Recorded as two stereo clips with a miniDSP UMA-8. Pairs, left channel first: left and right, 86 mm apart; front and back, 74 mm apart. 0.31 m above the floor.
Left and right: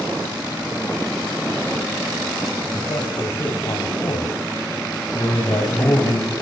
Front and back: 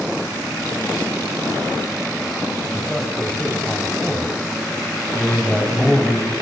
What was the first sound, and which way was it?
A man speaking, 85° left.